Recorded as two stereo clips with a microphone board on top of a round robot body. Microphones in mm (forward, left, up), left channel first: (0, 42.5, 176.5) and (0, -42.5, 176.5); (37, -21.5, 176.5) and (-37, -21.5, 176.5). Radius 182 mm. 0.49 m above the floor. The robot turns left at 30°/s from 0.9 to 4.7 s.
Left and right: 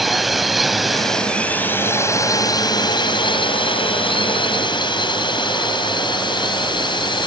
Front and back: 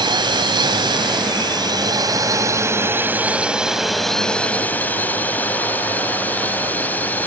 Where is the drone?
Straight behind; by 7.3 s 65° left.